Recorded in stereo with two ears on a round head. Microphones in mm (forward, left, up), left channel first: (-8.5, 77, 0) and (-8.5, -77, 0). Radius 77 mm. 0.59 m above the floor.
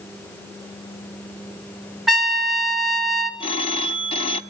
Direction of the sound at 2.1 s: Centre (ahead or behind).